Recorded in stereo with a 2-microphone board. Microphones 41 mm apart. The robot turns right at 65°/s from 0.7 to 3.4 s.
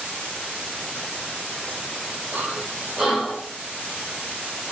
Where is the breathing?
50° right (ahead or behind), 2.5 m; by 4.7 s 10° left (ahead or behind), 2.5 m.